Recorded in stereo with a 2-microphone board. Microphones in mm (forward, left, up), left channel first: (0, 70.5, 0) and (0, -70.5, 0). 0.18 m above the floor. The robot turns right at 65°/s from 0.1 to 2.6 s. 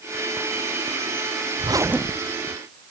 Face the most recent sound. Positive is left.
turn(degrees=30)